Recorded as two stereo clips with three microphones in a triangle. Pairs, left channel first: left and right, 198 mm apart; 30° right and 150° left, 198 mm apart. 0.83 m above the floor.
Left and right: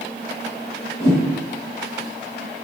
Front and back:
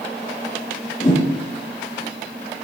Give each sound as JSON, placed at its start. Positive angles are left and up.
{"t": 1.0, "sound": "a whoosh", "azimuth_deg": 20, "distance_m": 1.8}